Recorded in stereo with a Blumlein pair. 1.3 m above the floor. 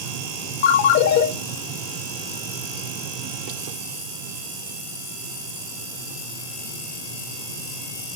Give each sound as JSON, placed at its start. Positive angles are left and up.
{"t": 0.6, "sound": "a ringtone", "azimuth_deg": 55, "distance_m": 1.3}